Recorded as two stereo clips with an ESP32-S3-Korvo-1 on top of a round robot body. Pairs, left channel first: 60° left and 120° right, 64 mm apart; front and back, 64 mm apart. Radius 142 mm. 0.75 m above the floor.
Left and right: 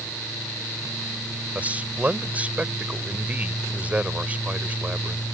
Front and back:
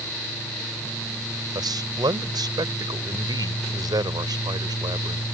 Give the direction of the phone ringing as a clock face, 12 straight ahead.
I don't hear a phone ringing.